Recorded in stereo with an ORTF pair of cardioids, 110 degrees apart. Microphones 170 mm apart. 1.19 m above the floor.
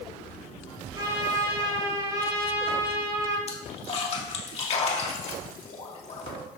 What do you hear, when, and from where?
0.9 s a trumpet: 25° right, 5 m
3.5 s a splash: 40° left, 2.5 m